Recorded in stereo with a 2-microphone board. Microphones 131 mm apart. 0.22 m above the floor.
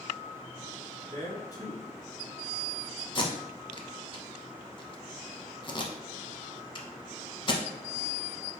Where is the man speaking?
25° left (ahead or behind), 1.2 m.